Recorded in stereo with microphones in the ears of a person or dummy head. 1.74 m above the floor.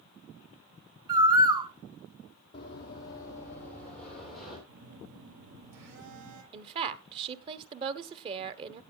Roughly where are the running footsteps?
Left.